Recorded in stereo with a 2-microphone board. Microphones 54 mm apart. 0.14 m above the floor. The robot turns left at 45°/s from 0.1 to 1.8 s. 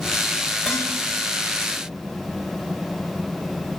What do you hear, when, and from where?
0.7 s dishes clattering: 15° left (ahead or behind), 10 m; by 0.9 s 5° left (ahead or behind), 10 m